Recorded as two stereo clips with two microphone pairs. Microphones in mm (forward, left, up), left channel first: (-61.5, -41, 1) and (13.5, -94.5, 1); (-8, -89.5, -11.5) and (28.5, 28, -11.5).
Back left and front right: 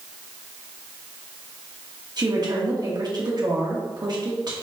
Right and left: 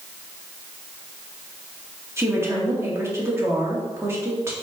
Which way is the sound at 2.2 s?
Straight ahead.